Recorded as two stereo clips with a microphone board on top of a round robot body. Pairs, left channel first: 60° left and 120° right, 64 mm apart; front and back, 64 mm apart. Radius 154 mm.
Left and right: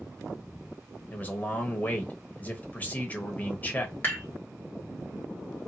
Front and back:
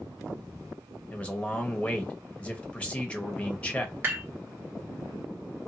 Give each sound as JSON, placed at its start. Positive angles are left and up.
{"t": 1.1, "sound": "a man speaking", "azimuth_deg": 40, "distance_m": 1.2}
{"t": 4.0, "sound": "dishes clattering", "azimuth_deg": 120, "distance_m": 1.8}